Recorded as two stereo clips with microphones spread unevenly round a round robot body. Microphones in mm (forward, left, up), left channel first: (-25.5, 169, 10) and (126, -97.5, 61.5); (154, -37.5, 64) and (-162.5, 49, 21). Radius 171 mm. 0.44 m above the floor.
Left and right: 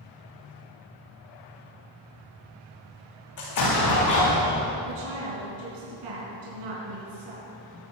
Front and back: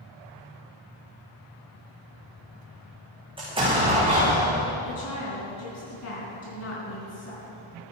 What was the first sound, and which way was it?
An explosion, 90° left.